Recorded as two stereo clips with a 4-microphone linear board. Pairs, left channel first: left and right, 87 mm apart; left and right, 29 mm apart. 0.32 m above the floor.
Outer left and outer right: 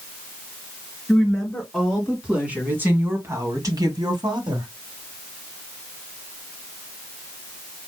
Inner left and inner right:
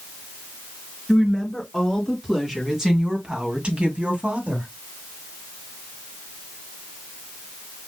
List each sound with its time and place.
1.1 s a woman speaking: centre (ahead or behind), 4 m; by 4.7 s 65° right (ahead or behind), 2.5 m